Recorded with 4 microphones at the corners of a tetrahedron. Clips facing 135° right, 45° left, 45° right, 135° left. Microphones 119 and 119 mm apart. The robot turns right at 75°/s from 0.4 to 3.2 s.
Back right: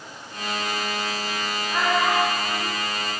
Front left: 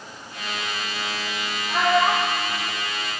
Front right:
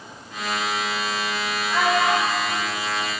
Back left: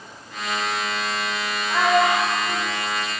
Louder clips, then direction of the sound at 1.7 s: Front left 3 dB, back left 2 dB; 70° left.